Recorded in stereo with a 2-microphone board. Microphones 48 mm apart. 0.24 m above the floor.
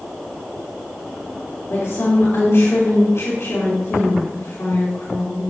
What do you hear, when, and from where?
1.7 s a woman speaking: 65° left (ahead or behind), 4 m